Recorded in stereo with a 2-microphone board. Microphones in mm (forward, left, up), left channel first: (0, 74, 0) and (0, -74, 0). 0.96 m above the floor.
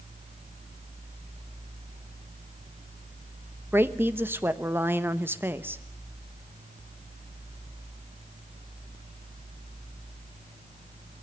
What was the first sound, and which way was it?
A woman speaking, 15° right (ahead or behind).